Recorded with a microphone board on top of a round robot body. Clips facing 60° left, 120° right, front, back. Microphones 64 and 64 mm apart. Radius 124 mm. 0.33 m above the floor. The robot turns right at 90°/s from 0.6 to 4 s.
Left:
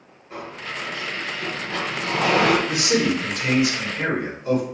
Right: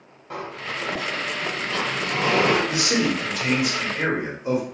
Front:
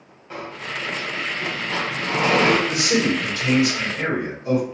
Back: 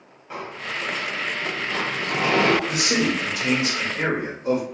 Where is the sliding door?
95° right, 1.0 m; by 2.6 s 85° left, 1.0 m.